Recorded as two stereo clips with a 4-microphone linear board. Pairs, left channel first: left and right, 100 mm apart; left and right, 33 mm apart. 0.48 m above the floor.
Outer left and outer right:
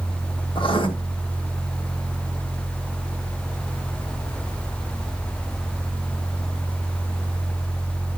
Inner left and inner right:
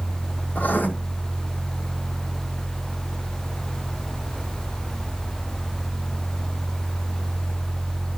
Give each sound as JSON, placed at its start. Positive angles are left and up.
{"t": 0.6, "sound": "writing", "side_deg": 55, "distance_m": 1.6}